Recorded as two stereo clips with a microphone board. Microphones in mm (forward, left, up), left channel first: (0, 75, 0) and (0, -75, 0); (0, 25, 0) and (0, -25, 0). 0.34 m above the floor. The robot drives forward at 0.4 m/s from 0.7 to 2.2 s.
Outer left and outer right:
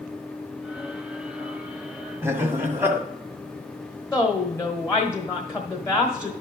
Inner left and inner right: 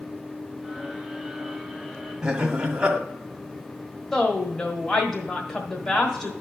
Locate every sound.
2.2 s laughter: 15° right (ahead or behind), 1.7 m
4.1 s a woman speaking: 20° left (ahead or behind), 1.2 m